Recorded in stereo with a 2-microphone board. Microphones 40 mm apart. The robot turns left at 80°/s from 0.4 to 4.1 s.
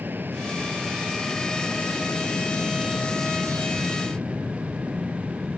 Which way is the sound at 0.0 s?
60° right (ahead or behind).